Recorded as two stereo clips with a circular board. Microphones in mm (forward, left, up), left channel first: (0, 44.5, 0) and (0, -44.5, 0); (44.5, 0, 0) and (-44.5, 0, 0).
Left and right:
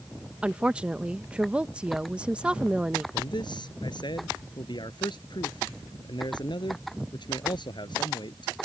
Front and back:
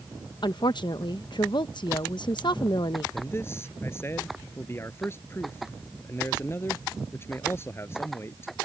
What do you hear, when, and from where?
0.4 s a woman speaking: 15° right
3.1 s a man speaking: 60° left